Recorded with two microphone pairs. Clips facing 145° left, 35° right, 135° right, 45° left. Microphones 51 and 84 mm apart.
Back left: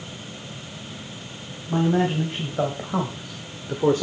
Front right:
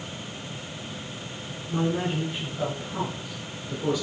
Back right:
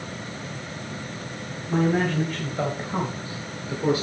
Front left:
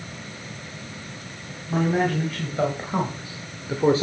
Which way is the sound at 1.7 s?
135° left.